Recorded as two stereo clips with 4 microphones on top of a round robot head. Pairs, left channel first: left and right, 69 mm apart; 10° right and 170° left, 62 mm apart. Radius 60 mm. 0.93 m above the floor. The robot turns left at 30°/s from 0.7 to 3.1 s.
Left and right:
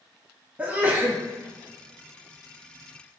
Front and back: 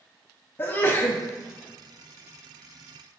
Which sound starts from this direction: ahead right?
A sneeze, at 0.6 s.